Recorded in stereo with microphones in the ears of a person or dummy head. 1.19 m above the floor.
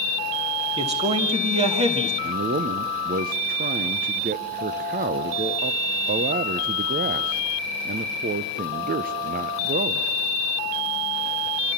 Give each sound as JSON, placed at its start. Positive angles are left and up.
{"t": 0.8, "sound": "a man speaking", "side_deg": -30, "distance_m": 1.8}
{"t": 2.2, "sound": "a man speaking", "side_deg": -45, "distance_m": 0.6}